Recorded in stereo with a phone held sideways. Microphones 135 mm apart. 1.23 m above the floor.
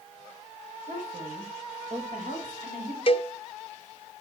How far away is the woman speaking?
About 4.5 m.